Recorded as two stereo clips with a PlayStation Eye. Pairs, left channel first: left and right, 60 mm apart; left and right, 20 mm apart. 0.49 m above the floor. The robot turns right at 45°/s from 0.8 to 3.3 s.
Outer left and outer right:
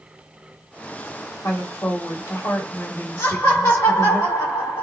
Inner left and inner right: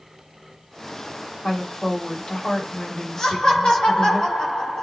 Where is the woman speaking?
55° left, 2.5 m; by 4.2 s 140° left, 2.5 m.